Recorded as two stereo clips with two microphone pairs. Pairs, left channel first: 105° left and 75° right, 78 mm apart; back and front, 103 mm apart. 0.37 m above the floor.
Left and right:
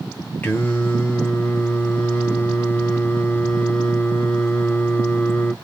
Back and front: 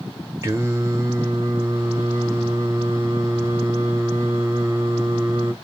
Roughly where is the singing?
Ahead left.